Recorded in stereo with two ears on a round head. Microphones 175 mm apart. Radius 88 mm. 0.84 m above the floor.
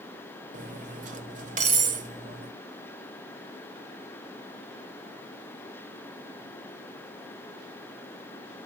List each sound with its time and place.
0.5 s cutlery clinking: 40° right (ahead or behind), 1.7 m